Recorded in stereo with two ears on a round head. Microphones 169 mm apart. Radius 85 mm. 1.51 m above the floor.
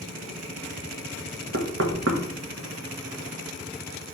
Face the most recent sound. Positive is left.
turn(degrees=-60)  # may be behind; listen again after turning